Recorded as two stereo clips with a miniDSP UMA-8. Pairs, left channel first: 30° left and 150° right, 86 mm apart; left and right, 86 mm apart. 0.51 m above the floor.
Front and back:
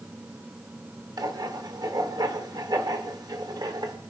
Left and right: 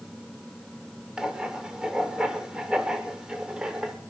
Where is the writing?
170° right, 1.3 m.